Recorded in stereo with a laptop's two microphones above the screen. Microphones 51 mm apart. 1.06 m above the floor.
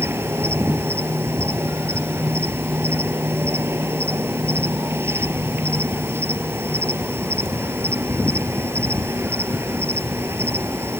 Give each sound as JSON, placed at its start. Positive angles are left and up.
{"t": 0.0, "sound": "an insect", "side_deg": -50}